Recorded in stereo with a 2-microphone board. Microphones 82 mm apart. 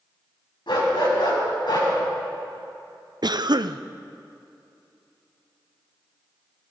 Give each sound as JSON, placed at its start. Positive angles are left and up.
{"t": 0.7, "sound": "a dog barking", "side_deg": 75, "distance_m": 4.5}
{"t": 3.2, "sound": "a cough", "side_deg": -60, "distance_m": 0.5}